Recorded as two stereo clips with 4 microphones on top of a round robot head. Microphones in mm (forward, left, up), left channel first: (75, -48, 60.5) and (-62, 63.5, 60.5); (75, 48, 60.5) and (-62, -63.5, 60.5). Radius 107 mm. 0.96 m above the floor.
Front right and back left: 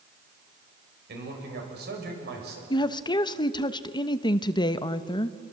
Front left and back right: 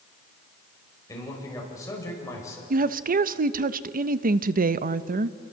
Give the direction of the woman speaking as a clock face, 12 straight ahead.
3 o'clock.